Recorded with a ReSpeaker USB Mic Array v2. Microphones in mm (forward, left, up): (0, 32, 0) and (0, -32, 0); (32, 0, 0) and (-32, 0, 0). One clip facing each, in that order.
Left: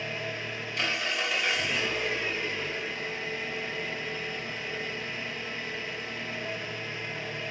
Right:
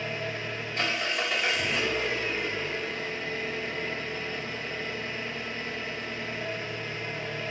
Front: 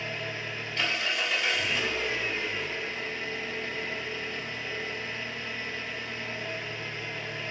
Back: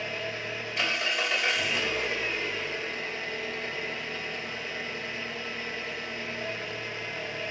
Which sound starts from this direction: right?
An engine running, at 0.0 s.